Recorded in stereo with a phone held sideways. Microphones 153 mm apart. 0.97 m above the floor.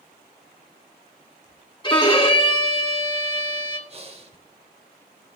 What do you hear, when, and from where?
1.8 s a violin: 30° left (ahead or behind), 1.8 m
3.9 s breathing: 40° right (ahead or behind), 1.7 m